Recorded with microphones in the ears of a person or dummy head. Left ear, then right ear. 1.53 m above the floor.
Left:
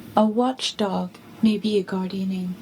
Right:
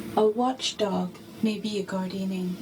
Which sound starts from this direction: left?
A woman speaking, at 0.2 s.